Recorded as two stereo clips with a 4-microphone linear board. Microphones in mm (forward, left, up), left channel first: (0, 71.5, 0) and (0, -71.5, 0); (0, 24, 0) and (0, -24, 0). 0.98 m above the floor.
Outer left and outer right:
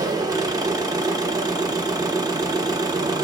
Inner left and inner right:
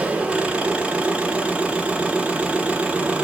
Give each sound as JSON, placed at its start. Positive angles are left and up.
{"t": 0.0, "sound": "an engine running", "side_deg": -25, "distance_m": 0.7}